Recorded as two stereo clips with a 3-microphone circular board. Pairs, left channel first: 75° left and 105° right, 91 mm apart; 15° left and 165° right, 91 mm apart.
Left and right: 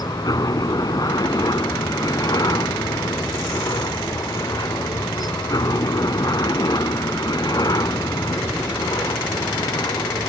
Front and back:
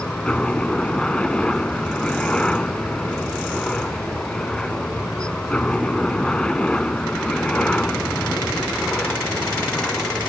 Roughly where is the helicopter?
Left.